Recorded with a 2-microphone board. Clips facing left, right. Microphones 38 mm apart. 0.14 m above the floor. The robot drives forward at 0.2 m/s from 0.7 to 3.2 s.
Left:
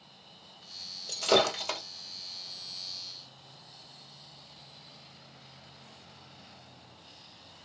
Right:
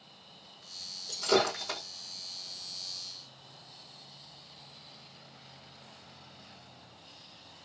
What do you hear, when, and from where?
1.1 s breaking glass: 70° left (ahead or behind), 1.7 m